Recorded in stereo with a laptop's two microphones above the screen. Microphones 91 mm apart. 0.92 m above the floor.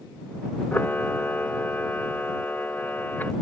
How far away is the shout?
I don't hear a shout.